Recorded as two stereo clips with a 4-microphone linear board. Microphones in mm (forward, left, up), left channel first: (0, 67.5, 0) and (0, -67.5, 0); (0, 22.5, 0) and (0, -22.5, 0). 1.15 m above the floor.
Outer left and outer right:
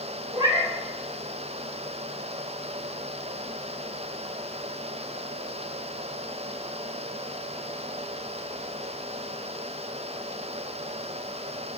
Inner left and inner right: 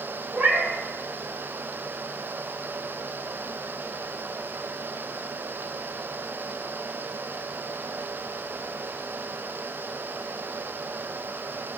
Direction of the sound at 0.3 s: 35° right (ahead or behind).